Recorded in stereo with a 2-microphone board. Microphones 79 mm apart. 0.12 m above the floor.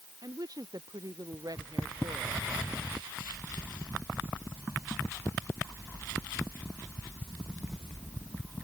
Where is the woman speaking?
55° right (ahead or behind).